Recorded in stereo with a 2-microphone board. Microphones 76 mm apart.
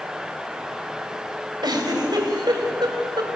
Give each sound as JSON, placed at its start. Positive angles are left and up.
{"t": 1.6, "sound": "a giggle", "side_deg": -70, "distance_m": 3.0}